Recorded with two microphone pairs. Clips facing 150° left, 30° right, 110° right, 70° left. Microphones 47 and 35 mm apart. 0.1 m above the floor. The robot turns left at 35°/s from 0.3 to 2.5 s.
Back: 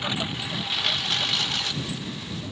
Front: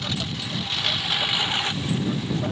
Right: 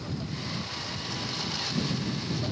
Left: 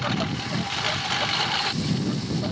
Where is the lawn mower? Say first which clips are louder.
Back 1 dB, left 9 dB; 80° left; by 2.5 s 5° left.